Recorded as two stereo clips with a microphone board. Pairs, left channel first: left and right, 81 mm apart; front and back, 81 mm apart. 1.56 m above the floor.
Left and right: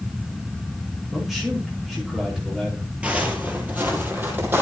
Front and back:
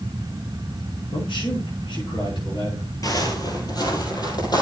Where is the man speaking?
5° right, 4.5 m.